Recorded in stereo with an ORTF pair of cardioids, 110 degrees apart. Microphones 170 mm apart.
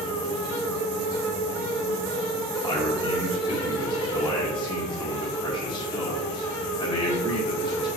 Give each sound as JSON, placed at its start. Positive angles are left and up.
{"t": 0.0, "sound": "a fan", "azimuth_deg": 20, "distance_m": 1.5}
{"t": 2.6, "sound": "a man speaking", "azimuth_deg": 25, "distance_m": 1.2}